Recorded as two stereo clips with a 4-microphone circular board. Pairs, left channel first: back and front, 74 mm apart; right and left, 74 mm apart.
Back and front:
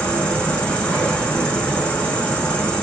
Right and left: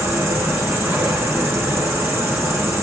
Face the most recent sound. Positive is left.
turn(degrees=115)